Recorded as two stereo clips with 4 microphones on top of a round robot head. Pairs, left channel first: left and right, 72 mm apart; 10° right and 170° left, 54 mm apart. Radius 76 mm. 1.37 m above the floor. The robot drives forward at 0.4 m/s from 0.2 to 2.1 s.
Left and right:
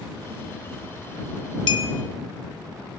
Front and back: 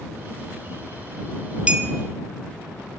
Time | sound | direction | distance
1.7 | a clink | 100° left | 2.5 m